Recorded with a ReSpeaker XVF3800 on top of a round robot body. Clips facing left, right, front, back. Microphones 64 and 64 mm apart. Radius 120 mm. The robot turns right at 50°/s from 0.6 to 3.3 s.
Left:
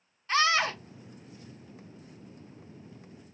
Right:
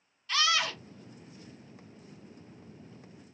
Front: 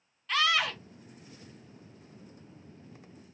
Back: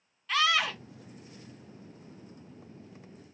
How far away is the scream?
About 0.7 m.